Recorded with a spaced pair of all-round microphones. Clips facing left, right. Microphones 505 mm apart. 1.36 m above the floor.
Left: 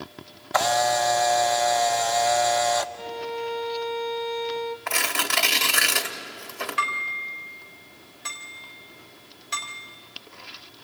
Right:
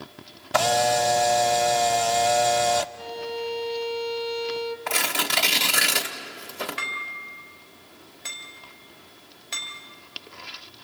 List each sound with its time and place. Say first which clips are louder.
0.5 s a camera shutter: right 2 dB; 50° right (ahead or behind), 0.6 m
3.0 s a violin: even; 70° left (ahead or behind), 1.4 m
4.9 s tearing paper: right 1 dB; 55° right (ahead or behind), 1.8 m
6.8 s dishes clattering: left 3 dB; 30° left (ahead or behind), 3.5 m